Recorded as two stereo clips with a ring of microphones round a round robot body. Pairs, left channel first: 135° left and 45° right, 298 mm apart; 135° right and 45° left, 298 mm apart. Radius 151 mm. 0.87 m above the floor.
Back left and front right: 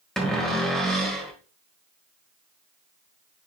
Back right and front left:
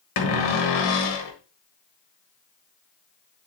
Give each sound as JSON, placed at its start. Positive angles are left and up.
{"t": 0.2, "sound": "a cupboard door", "azimuth_deg": -135, "distance_m": 1.4}